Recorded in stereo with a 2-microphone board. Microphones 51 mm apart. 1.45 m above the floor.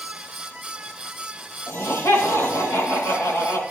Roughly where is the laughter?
Left.